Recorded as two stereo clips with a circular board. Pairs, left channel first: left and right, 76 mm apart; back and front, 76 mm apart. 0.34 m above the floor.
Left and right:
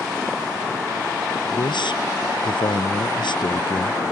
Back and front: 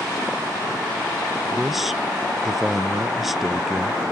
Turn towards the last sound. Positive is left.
turn(degrees=90)